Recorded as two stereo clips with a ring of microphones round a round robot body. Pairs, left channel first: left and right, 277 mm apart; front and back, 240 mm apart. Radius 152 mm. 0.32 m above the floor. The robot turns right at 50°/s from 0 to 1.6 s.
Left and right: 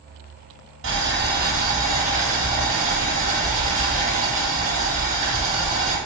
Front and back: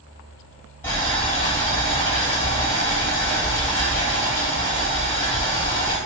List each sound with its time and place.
0.8 s boiling: 80° right, 2 m; by 6.0 s 40° right, 2 m